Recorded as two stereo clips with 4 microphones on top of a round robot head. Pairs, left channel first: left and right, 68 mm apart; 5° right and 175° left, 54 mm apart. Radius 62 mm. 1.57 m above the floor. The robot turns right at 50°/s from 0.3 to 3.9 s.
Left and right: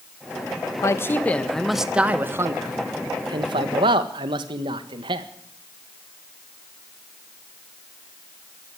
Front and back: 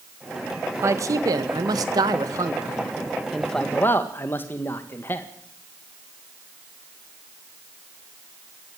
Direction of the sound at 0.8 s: 140° left.